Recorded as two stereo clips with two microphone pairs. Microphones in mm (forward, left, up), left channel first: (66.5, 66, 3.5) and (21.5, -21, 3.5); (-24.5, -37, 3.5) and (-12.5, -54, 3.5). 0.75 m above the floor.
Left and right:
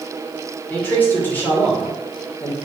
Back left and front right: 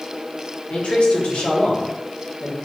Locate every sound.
0.7 s a man speaking: 130° left, 2.5 m